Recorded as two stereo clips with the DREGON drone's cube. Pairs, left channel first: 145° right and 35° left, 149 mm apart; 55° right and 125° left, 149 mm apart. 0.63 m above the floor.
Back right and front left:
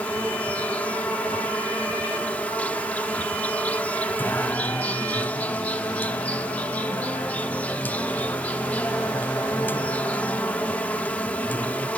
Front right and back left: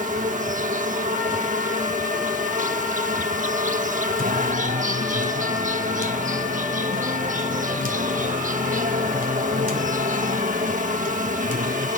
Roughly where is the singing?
Behind left.